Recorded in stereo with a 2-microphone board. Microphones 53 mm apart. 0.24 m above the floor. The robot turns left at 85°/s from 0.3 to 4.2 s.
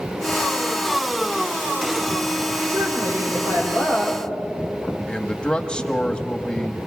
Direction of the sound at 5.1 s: 20° left (ahead or behind).